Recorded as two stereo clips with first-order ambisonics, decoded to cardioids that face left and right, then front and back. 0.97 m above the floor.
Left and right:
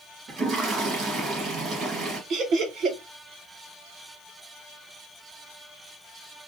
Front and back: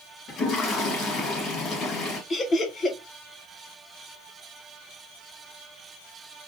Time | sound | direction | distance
0.3 | a toilet flushing | 45° right | 1.2 m
2.3 | laughter | 60° right | 0.8 m